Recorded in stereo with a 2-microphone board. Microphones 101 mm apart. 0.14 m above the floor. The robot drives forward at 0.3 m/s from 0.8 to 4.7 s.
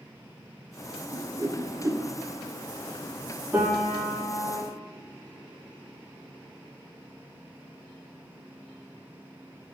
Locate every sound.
1.1 s a whoosh: 35° right (ahead or behind), 1.5 m; by 2.0 s 30° right (ahead or behind), 1.7 m
3.5 s a piano: 20° right (ahead or behind), 5 m; by 4.6 s 15° right (ahead or behind), 5 m